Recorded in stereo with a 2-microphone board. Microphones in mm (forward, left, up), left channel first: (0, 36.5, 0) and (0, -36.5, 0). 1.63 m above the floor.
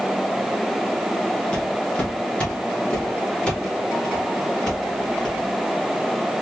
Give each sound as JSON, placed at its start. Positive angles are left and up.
{"t": 1.5, "sound": "footsteps", "side_deg": 15, "distance_m": 1.9}